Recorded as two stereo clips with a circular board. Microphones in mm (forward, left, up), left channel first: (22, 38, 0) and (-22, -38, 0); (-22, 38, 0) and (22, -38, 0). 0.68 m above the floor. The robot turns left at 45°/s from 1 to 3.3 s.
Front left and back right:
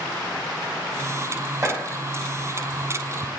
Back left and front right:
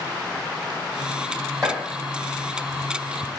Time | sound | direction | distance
1.6 | chopping | 165° right | 1.4 m